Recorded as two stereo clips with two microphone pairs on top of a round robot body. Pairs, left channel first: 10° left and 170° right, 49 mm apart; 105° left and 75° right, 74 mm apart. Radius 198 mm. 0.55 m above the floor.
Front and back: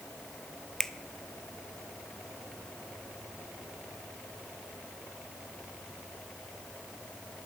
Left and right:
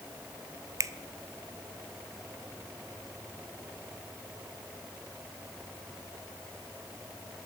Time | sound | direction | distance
0.8 | a finger snap | 70° right | 0.7 m